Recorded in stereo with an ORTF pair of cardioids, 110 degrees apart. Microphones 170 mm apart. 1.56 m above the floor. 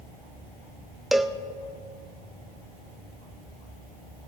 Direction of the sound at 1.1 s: Straight ahead.